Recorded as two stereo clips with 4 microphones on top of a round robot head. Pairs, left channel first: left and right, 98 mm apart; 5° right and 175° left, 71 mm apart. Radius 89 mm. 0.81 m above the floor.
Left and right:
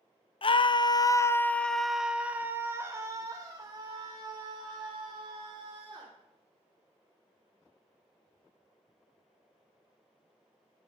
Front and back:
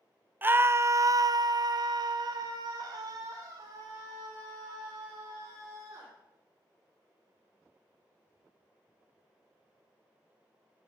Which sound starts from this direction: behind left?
A scream, at 0.4 s.